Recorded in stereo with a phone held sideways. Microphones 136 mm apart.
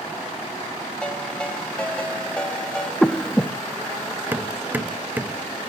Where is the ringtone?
5° left (ahead or behind), 4.5 m.